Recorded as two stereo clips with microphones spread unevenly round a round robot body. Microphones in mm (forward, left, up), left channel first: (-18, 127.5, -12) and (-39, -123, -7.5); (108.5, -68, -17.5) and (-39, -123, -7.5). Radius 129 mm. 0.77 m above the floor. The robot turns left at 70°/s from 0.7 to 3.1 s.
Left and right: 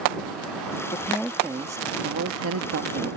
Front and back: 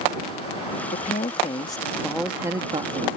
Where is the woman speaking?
20° left; by 3.1 s 130° right.